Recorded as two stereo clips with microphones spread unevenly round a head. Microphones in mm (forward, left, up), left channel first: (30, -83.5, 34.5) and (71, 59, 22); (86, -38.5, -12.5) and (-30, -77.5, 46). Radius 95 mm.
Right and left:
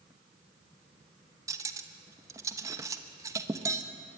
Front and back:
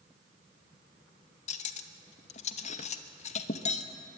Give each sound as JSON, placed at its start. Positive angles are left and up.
{"t": 1.5, "sound": "cutlery clinking", "azimuth_deg": 30, "distance_m": 1.0}